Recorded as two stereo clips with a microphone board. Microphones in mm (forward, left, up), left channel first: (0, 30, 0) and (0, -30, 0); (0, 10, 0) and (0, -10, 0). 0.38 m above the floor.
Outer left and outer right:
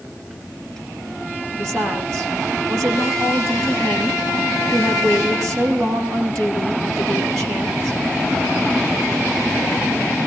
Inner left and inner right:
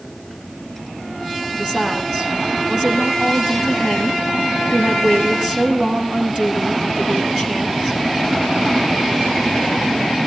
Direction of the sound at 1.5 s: 60° right (ahead or behind).